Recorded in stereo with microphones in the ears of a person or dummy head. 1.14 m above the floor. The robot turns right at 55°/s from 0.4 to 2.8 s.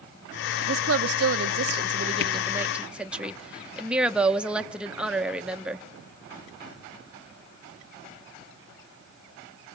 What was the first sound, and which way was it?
A woman speaking, 120° right.